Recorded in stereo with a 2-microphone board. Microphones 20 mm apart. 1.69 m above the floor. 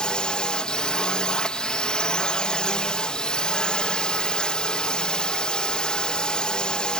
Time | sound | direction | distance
0.0 | a drone | 50° left (ahead or behind) | ?